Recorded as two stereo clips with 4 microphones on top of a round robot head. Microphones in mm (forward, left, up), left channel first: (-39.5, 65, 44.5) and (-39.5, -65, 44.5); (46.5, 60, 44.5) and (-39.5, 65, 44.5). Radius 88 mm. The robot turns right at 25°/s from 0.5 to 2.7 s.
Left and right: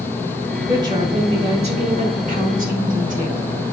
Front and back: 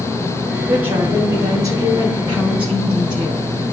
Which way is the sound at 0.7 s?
150° right.